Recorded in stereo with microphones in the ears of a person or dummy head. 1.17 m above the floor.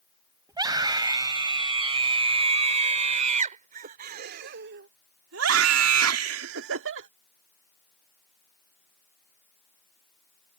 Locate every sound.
0.5 s a scream: 20° right (ahead or behind); by 7.1 s 70° right (ahead or behind)